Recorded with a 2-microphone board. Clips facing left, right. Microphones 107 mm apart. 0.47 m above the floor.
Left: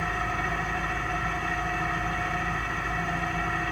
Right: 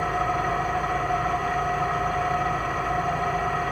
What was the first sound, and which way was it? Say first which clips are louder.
An engine running: right 6 dB; 55° right (ahead or behind).